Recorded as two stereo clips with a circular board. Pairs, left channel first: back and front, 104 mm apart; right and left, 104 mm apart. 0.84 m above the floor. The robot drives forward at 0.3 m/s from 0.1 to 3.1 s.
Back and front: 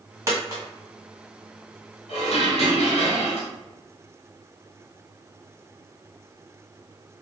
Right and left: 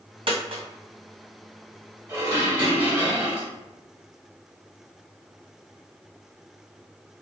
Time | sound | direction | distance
0.3 | a dropped coin | 60° left | 1.7 m
2.1 | dishes clattering | 160° left | 1.6 m